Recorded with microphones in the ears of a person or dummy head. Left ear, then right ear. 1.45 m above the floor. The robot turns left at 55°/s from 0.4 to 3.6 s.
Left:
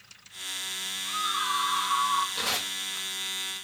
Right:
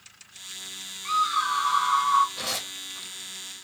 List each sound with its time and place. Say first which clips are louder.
1.1 s a scream: right 6 dB; 65° right, 1.2 m; by 2.2 s 130° right, 1.2 m
2.4 s tearing paper: left 2 dB; 30° left (ahead or behind), 1.4 m; by 3.1 s 60° left (ahead or behind), 1.4 m